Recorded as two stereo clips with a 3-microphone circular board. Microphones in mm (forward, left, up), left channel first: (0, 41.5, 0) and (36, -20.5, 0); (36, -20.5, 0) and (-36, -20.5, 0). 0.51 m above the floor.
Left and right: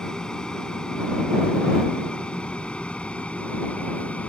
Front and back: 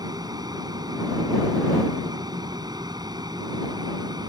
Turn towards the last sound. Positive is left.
turn(degrees=-170)